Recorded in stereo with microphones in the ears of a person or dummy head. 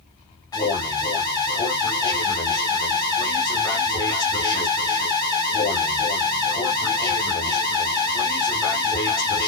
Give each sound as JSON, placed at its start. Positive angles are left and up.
{"t": 0.5, "sound": "an alarm", "side_deg": 25, "distance_m": 1.6}